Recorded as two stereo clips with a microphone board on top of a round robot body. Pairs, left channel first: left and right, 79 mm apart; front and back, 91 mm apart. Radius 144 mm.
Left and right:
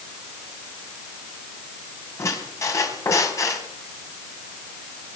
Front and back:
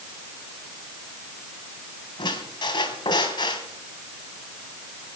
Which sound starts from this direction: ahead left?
A squeak, at 2.2 s.